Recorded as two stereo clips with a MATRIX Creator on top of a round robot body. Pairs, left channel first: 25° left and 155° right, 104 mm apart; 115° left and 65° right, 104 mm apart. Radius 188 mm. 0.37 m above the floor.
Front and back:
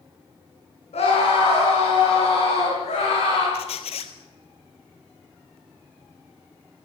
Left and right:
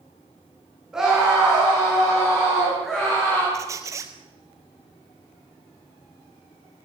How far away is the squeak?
About 0.7 m.